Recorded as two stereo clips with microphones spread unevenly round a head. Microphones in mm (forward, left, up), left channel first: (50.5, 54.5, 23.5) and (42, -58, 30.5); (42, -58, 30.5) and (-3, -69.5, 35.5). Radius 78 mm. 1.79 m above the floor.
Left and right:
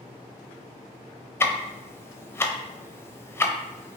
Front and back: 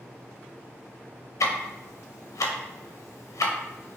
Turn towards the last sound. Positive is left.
turn(degrees=15)